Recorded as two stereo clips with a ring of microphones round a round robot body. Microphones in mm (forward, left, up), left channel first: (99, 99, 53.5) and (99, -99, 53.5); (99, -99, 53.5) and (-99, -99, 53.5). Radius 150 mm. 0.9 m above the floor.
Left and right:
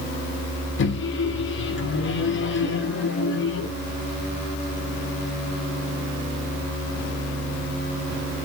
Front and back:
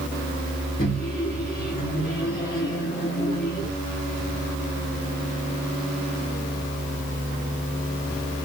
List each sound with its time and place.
0.8 s a microwave: 60° left, 0.9 m